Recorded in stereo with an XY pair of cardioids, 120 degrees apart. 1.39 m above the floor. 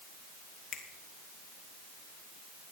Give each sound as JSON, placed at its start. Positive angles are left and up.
{"t": 0.7, "sound": "a finger snap", "azimuth_deg": 65, "distance_m": 2.5}